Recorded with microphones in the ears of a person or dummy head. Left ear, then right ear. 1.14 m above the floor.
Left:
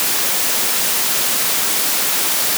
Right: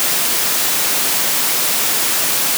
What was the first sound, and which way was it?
Only background noise.